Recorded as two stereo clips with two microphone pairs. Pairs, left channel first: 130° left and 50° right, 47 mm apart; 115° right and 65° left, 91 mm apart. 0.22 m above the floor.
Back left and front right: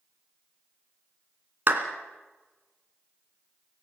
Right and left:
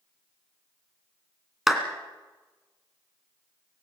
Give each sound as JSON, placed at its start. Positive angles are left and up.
{"t": 1.7, "sound": "a clap", "azimuth_deg": -20, "distance_m": 2.5}